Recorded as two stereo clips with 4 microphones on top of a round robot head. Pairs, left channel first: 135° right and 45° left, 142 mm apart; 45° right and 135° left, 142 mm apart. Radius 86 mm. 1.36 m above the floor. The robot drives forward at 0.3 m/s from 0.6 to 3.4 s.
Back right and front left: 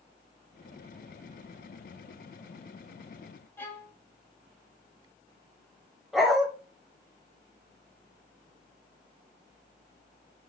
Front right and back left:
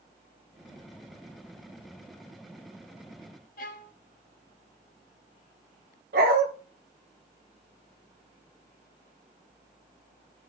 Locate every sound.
3.6 s a violin: 60° right, 1.0 m
6.1 s a dog barking: 135° left, 1.7 m